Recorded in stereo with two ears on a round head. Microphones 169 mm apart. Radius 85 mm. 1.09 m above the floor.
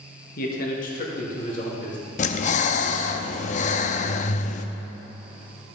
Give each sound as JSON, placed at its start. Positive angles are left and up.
{"t": 0.4, "sound": "a man speaking", "side_deg": 50, "distance_m": 1.4}
{"t": 2.2, "sound": "breathing", "side_deg": 40, "distance_m": 0.5}